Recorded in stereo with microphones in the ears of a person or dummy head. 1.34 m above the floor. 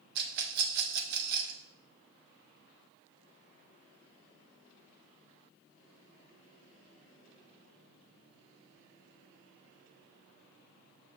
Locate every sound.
0.1 s a rattle: 65° right (ahead or behind), 0.9 m